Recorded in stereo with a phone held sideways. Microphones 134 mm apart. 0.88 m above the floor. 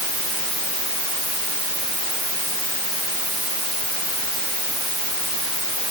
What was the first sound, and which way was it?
Only background noise.